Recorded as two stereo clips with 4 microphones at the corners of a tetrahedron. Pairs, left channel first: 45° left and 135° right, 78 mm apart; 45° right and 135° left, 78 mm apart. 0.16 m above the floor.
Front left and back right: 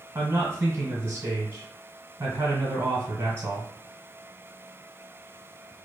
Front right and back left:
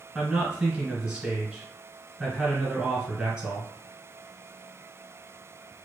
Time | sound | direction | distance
0.1 | a man speaking | 160° right | 1.3 m